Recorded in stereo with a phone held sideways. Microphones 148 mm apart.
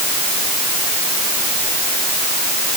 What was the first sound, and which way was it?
Only background noise.